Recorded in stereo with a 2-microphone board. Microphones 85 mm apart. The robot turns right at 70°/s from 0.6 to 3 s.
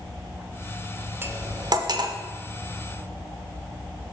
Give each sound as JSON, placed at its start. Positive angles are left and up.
{"t": 1.2, "sound": "cutlery clinking", "side_deg": -30, "distance_m": 0.6}